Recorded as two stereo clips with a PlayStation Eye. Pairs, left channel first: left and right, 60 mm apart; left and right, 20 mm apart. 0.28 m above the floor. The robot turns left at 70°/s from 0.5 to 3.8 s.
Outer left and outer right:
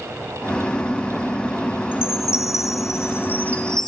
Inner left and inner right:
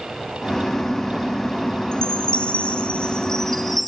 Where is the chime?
140° left, 2 m; by 3.9 s 5° left, 2 m.